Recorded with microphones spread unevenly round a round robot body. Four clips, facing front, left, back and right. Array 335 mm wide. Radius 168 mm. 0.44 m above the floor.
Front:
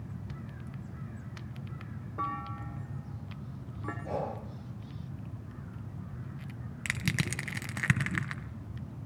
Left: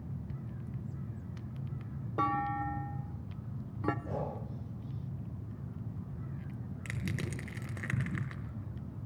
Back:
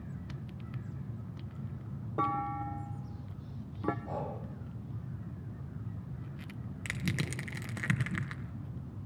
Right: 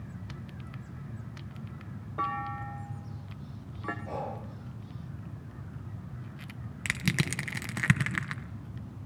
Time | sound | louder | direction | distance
2.2 | a clunk | left 2 dB, back 4 dB | 155° left | 0.7 m
4.0 | breathing | right 2 dB, front 4 dB | 20° left | 5.5 m
6.8 | crushing | right 8 dB, front 2 dB | 65° right | 2.5 m